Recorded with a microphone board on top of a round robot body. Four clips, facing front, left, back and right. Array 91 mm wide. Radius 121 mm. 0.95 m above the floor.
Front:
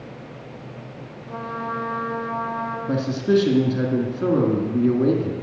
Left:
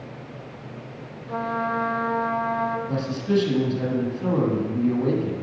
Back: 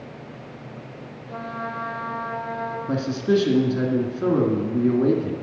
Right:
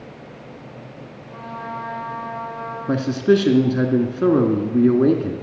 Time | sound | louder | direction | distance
1.3 | a trumpet | left 6 dB, front 2 dB | 75° left | 1.9 m
2.9 | a man speaking | right 7 dB, front 1 dB | 85° right | 2.5 m